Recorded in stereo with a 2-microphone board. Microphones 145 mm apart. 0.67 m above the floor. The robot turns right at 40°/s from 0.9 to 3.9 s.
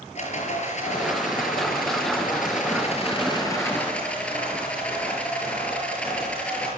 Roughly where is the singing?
I don't hear singing.